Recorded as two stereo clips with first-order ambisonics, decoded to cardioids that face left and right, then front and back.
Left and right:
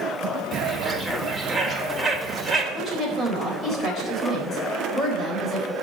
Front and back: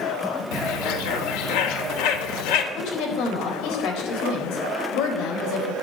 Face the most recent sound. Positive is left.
turn(degrees=20)